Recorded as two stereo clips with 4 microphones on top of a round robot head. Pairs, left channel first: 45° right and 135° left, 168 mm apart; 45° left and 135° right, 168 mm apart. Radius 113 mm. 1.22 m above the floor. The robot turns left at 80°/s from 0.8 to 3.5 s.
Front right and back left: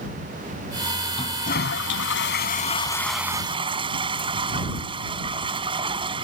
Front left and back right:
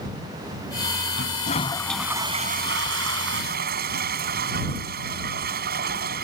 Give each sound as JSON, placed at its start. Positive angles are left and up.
{"t": 1.1, "sound": "a toilet flushing", "azimuth_deg": 20}